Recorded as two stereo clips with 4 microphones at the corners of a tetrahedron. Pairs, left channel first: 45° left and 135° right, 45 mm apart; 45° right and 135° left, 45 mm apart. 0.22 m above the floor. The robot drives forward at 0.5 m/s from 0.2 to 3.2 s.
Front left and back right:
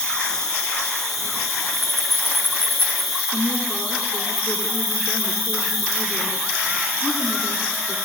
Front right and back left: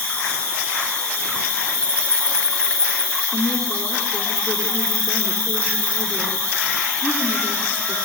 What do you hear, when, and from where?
0.0 s an insect: 120° left, 3 m; by 8.1 s 140° left, 4 m
3.3 s a woman speaking: 110° left, 2.5 m